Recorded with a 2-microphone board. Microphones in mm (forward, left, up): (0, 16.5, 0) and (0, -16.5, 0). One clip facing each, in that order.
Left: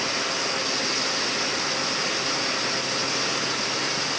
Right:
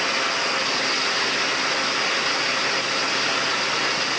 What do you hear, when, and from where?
Only background noise.